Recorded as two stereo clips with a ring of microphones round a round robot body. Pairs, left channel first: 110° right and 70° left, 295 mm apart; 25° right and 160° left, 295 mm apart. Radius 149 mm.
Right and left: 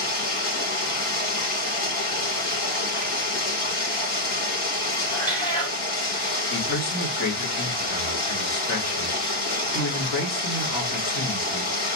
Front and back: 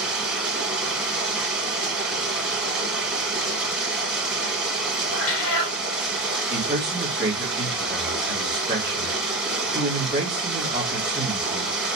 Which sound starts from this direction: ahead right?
A cat meowing, at 5.1 s.